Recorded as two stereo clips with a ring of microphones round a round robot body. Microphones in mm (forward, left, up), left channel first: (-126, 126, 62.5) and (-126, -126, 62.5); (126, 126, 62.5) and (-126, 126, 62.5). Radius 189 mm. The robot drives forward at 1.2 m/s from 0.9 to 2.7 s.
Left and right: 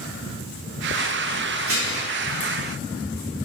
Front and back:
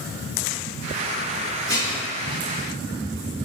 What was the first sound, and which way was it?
Dishes clattering, 125° right.